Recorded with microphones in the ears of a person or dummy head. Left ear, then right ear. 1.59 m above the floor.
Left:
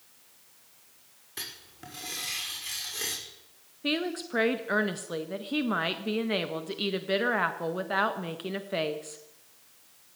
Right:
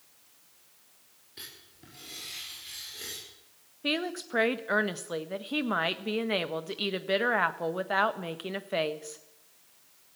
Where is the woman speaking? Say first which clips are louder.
Left 1 dB; 20° right (ahead or behind), 1.5 m.